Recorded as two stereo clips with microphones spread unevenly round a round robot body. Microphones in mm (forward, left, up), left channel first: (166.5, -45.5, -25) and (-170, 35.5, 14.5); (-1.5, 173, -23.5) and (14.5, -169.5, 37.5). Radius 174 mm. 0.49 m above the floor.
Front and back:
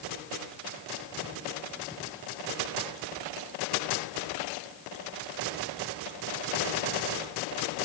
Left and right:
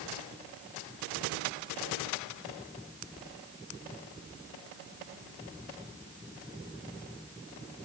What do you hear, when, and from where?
Only background noise.